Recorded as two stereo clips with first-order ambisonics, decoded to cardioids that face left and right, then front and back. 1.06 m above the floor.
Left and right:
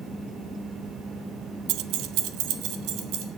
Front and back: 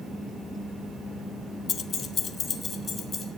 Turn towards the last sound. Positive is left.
turn(degrees=-65)